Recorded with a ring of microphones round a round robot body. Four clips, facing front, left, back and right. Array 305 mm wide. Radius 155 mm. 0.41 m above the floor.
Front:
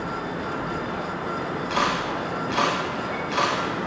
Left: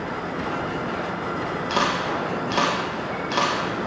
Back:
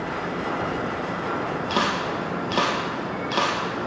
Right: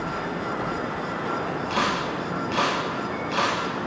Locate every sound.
1.7 s a camera shutter: 145° left, 2 m